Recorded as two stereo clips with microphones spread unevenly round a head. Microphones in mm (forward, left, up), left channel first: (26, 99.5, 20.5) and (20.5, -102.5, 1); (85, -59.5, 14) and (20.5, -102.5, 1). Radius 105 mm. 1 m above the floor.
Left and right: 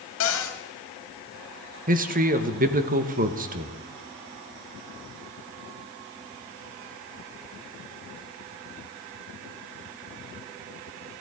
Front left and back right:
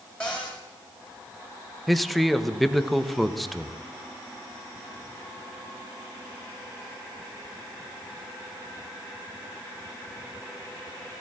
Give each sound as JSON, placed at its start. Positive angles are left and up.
{"t": 0.2, "sound": "a cupboard door", "azimuth_deg": 120, "distance_m": 2.0}
{"t": 1.9, "sound": "a man speaking", "azimuth_deg": -60, "distance_m": 1.0}